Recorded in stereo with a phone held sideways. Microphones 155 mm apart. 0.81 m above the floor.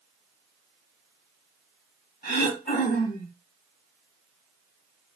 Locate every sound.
2.2 s throat clearing: 70° left (ahead or behind), 2 m